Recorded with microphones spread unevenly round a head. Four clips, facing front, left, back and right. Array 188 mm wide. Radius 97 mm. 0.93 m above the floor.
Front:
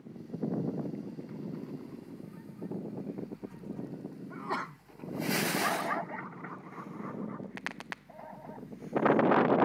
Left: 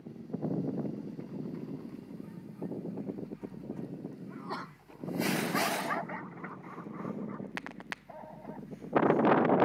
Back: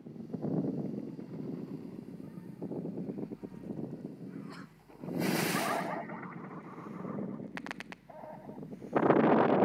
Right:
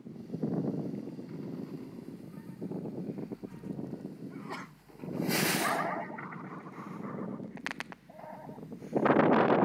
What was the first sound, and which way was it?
A sneeze, 5° left.